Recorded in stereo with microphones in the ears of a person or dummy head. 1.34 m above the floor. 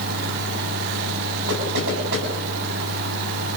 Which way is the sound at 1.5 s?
60° right (ahead or behind).